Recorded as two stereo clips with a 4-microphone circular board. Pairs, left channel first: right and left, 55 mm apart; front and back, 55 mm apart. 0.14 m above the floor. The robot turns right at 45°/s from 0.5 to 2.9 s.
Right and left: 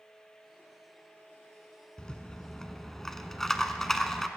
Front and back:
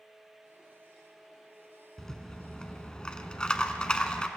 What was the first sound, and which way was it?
A rattle, 65° right.